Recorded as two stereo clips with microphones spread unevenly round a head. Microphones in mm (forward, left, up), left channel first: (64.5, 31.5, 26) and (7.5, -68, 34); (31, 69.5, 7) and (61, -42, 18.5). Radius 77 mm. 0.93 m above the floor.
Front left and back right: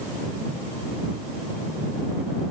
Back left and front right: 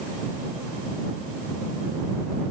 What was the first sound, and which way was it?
Only background noise.